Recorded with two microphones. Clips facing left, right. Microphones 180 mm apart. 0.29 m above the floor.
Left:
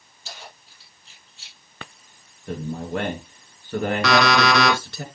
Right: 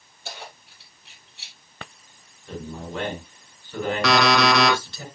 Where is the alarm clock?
Centre (ahead or behind), 2.5 m.